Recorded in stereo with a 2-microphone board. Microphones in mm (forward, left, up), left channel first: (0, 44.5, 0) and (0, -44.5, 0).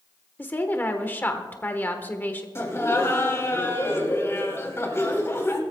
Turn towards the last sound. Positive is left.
turn(degrees=30)  # may be behind; listen again after turning